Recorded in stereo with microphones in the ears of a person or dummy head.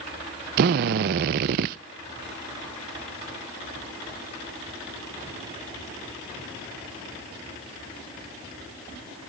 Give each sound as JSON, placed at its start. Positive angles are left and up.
{"t": 0.6, "sound": "a drill", "side_deg": -55, "distance_m": 0.6}